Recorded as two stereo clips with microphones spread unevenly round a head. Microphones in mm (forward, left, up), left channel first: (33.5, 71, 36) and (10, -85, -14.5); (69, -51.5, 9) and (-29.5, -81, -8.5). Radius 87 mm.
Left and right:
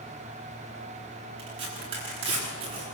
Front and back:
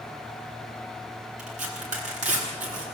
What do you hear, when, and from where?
1.4 s tearing paper: 160° right, 9.5 m